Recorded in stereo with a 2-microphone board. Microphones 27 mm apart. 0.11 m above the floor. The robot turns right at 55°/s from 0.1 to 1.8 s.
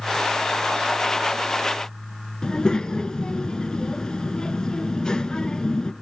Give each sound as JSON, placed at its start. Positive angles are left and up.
{"t": 2.4, "sound": "a child speaking", "side_deg": 30, "distance_m": 0.7}